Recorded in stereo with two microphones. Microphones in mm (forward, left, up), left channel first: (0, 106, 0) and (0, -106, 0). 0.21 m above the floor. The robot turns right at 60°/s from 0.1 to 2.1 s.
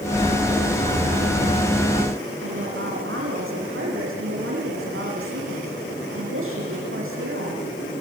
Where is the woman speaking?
80° right, 9 m.